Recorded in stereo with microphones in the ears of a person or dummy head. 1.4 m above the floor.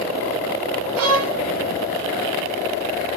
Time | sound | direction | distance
1.0 | a violin | 65° right (ahead or behind) | 0.6 m